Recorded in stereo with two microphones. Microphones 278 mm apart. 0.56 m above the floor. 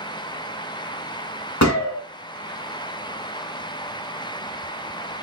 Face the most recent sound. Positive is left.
turn(degrees=75)  # may be behind; listen again after turning